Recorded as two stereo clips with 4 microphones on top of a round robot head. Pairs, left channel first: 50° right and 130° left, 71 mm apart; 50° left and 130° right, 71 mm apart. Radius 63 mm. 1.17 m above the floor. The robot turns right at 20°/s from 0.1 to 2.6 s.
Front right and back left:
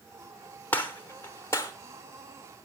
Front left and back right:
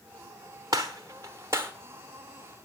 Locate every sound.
0.7 s a gunshot: 105° right, 0.9 m; by 1.7 s 85° right, 0.9 m